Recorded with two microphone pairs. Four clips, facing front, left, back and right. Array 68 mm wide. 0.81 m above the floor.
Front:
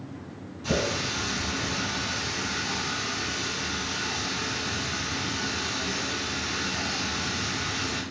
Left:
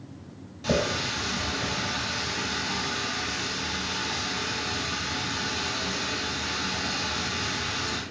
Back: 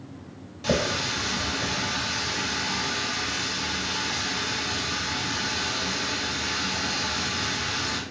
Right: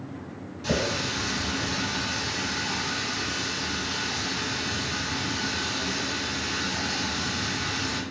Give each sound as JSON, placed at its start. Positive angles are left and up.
{"t": 0.6, "sound": "a running tap", "azimuth_deg": 165, "distance_m": 2.5}